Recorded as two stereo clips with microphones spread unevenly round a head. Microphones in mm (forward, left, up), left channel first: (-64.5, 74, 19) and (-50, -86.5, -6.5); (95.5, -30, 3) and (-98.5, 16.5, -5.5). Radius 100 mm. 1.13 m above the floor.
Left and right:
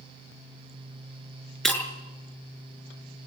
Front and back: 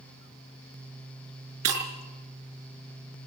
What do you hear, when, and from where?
1.6 s breaking glass: straight behind, 5.5 m